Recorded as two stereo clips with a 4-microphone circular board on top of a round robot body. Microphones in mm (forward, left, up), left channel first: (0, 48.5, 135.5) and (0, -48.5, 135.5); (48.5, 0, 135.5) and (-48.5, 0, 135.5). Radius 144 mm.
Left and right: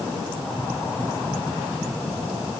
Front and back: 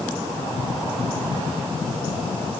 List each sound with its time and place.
Only background noise.